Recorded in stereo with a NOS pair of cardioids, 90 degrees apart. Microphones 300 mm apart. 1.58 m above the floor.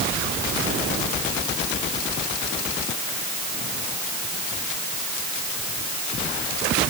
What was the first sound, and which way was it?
Only background noise.